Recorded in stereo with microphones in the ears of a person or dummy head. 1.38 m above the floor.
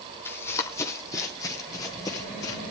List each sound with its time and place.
0.2 s running footsteps: 10° left (ahead or behind), 3.5 m; by 2.6 s 15° left (ahead or behind), 5 m